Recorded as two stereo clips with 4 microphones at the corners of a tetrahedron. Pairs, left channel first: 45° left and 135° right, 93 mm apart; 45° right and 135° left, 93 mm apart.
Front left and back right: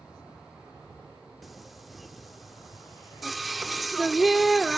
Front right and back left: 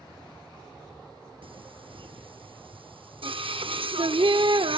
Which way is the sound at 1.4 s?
135° left.